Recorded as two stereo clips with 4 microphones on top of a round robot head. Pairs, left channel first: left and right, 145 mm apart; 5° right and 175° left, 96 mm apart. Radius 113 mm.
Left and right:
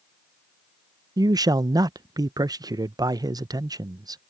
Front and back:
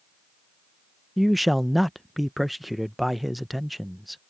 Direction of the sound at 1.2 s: 95° right.